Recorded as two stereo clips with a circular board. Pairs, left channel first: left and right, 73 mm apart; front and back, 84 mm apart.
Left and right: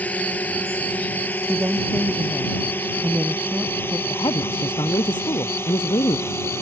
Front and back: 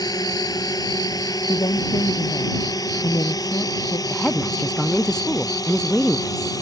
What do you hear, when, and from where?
0.0 s a drone: 25° left; by 6.6 s 40° left
1.5 s a woman speaking: 25° right
4.1 s a woman speaking: 85° left